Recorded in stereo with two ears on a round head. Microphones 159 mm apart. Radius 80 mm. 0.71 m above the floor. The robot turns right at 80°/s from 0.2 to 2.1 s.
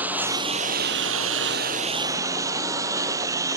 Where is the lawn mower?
170° right; by 3.6 s 20° right.